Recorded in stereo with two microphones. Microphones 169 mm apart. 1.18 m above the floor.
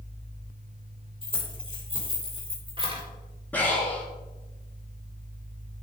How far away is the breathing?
About 2.5 m.